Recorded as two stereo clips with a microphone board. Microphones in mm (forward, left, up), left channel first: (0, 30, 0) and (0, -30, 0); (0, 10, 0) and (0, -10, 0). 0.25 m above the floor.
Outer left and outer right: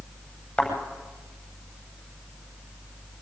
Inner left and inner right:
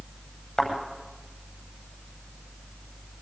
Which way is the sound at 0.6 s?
15° left (ahead or behind).